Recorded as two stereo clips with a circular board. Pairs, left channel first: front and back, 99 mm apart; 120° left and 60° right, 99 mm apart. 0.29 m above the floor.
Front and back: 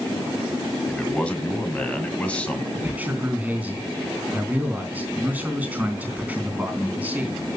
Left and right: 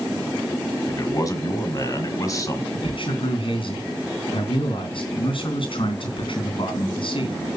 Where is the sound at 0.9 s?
75° left, 1.8 m.